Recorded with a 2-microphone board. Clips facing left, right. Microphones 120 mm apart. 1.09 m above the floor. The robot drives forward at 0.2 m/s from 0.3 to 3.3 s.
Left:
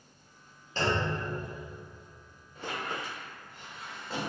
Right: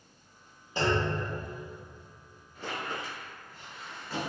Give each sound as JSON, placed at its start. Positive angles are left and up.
{"t": 0.8, "sound": "a clunk", "side_deg": -10, "distance_m": 0.7}
{"t": 2.5, "sound": "a squeak", "side_deg": 25, "distance_m": 1.4}